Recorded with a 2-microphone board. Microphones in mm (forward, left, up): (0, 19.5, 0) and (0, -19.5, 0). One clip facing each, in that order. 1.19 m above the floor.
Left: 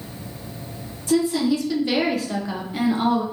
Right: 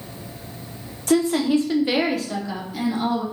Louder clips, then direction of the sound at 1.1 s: Right 1 dB; 55° right (ahead or behind).